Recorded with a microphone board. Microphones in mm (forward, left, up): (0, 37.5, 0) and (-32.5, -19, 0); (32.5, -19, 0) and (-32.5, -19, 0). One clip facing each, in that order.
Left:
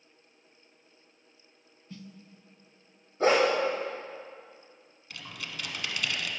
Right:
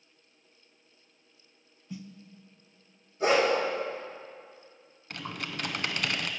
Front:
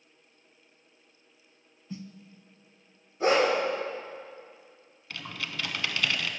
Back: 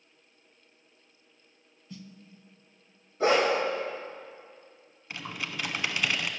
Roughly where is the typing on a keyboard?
Behind right.